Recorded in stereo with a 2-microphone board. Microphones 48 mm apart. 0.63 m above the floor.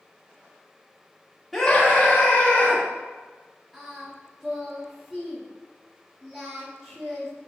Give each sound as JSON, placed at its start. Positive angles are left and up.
{"t": 1.5, "sound": "a scream", "side_deg": 0, "distance_m": 0.8}
{"t": 3.7, "sound": "singing", "side_deg": 0, "distance_m": 1.4}